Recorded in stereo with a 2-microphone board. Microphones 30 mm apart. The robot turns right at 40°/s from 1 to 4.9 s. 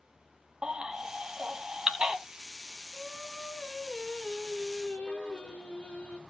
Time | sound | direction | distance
0.6 | a baby crying | 25° right (ahead or behind) | 1.1 m
2.9 | singing | 15° right | 2.0 m